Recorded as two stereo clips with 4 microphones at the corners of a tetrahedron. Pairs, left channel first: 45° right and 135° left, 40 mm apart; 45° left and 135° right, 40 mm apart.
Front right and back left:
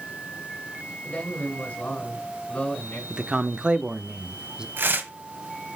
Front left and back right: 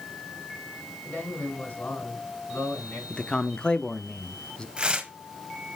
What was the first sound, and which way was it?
A man speaking, 10° left.